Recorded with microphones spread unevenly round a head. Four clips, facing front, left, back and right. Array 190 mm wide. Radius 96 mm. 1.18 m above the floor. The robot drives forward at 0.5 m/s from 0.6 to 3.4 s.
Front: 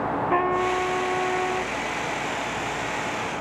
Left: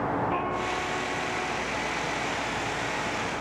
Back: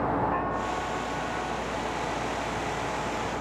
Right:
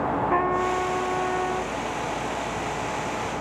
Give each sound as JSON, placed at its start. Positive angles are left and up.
{"t": 0.3, "sound": "a trumpet", "azimuth_deg": -30}